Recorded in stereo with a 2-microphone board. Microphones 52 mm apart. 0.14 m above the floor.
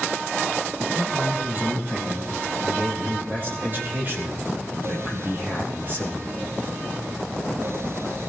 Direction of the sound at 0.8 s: 45° right (ahead or behind).